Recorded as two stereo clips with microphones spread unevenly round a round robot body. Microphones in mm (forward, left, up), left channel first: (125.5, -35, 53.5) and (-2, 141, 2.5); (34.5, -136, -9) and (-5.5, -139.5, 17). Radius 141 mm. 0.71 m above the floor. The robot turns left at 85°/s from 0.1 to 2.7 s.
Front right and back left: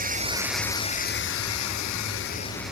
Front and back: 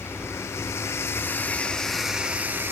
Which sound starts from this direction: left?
Running water, at 0.0 s.